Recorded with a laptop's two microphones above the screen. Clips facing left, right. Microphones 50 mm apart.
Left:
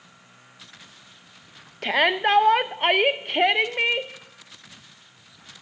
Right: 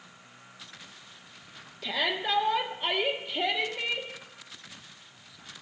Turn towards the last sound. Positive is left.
turn(degrees=55)  # may be behind; listen again after turning